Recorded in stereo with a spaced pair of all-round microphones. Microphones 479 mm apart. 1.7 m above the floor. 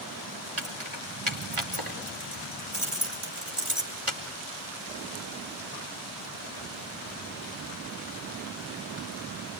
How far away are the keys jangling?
About 4.5 m.